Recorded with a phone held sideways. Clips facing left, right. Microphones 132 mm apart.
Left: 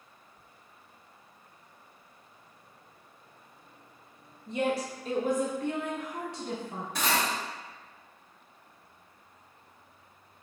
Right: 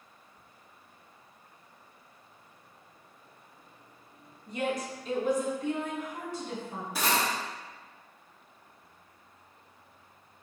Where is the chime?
No chime in this recording.